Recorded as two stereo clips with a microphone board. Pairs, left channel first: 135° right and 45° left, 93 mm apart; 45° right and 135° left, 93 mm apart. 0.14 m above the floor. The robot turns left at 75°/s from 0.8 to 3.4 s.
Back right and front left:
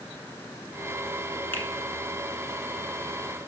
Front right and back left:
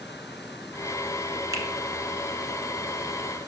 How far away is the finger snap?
About 1.2 m.